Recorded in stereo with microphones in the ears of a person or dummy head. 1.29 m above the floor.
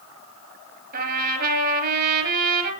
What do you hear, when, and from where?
0.9 s a trumpet: 55° right (ahead or behind), 5.5 m